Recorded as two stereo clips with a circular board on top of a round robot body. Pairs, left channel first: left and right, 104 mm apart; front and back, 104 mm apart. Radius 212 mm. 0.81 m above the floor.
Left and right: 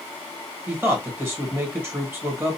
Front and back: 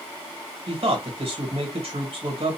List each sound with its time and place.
0.7 s a man speaking: 160° right, 1.7 m